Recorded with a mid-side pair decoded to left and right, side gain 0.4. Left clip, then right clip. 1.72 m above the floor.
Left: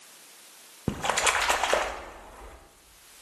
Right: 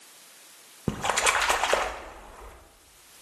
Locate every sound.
0.9 s a splash: 10° right, 0.6 m